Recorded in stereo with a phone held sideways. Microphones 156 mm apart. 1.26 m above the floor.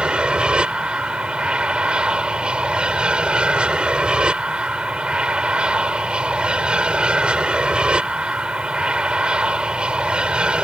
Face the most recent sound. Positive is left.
turn(degrees=-5)  # may be behind; listen again after turning